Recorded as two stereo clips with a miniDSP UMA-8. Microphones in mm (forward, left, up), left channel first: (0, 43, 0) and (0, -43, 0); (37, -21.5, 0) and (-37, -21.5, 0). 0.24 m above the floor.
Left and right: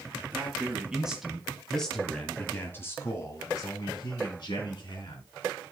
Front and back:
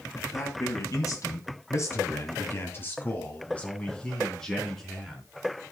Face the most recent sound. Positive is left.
turn(degrees=90)